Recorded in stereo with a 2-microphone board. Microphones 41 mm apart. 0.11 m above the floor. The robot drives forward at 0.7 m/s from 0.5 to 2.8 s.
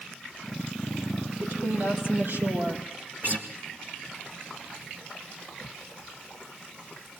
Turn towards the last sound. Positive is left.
turn(degrees=-45)  # may be behind; listen again after turning